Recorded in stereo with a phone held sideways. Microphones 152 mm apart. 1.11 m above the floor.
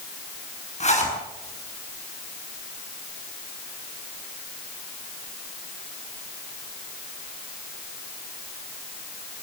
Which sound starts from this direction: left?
A zipper, at 0.8 s.